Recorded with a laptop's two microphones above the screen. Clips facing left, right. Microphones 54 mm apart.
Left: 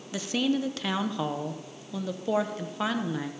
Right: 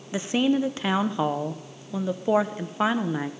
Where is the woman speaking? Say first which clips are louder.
Right 4 dB; 25° right (ahead or behind), 0.6 m.